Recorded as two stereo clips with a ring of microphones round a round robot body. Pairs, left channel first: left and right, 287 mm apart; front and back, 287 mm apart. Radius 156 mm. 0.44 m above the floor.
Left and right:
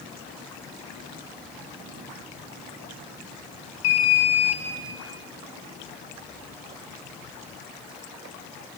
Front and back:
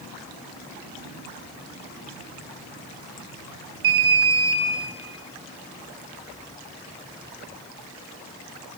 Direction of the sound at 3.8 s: 135° left.